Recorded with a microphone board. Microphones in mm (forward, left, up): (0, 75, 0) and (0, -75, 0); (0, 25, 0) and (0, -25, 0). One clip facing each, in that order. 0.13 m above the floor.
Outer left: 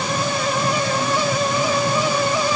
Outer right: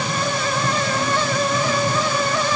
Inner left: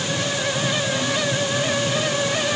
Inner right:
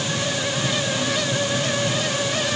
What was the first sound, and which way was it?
Only background noise.